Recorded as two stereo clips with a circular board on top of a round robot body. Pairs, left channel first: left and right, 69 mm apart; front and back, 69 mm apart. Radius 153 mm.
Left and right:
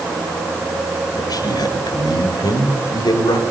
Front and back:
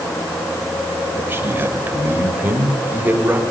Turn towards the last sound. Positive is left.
turn(degrees=110)